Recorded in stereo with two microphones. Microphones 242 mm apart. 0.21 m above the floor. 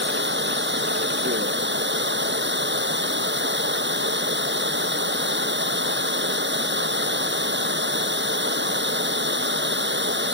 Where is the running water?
50° right (ahead or behind).